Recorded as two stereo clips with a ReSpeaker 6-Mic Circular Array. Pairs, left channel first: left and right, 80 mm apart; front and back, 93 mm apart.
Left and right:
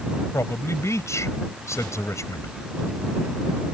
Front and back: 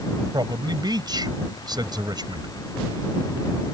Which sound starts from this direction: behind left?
A man speaking, at 0.3 s.